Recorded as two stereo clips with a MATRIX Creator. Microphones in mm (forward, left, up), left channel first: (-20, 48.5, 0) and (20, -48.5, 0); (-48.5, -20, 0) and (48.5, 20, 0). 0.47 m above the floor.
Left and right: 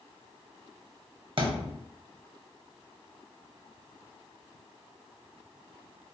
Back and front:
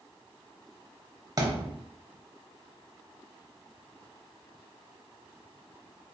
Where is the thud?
30° right, 0.7 m.